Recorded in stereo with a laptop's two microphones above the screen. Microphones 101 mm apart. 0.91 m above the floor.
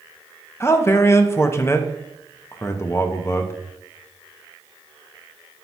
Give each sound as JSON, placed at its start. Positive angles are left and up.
{"t": 0.6, "sound": "a man speaking", "side_deg": 25, "distance_m": 0.6}